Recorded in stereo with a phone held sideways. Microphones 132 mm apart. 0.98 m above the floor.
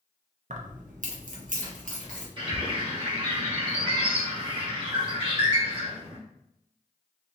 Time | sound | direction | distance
0.5 | keys jangling | 70° right (ahead or behind) | 0.8 m
2.4 | a bird | 40° right (ahead or behind) | 1.5 m